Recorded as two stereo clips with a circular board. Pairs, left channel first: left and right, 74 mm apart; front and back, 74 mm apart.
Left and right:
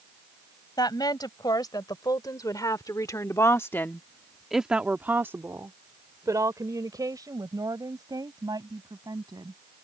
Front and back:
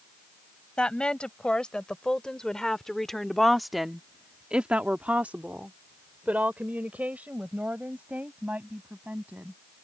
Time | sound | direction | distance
0.8 | a woman speaking | 75° left | ?